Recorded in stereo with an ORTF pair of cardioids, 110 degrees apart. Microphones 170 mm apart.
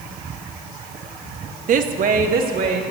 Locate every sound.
1.7 s a woman speaking: 55° right, 0.7 m; by 2.8 s 60° right, 1.8 m